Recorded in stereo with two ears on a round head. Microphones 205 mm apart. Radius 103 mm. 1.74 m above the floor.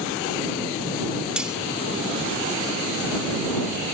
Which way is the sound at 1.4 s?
5° right (ahead or behind).